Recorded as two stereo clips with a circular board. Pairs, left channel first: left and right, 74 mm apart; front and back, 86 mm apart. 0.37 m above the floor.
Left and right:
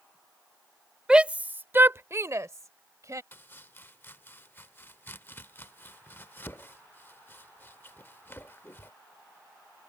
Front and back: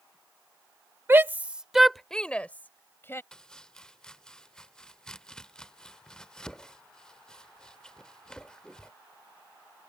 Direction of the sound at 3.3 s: 70° left.